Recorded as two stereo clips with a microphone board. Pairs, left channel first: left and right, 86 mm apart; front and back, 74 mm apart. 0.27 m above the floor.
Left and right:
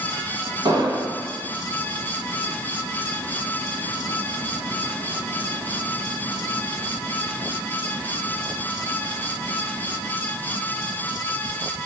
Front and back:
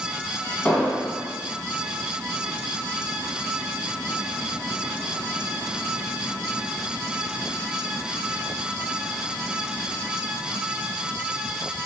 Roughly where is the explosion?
Right.